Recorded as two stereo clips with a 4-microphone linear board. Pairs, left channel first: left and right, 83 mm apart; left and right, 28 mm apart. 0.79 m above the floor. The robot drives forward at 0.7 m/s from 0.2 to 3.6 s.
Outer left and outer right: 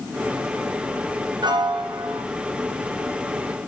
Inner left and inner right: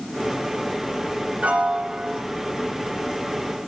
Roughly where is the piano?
Right.